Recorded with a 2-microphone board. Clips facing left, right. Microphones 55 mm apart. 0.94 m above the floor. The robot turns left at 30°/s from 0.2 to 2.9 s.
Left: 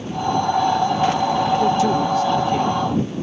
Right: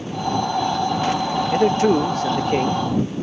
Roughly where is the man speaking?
Ahead right.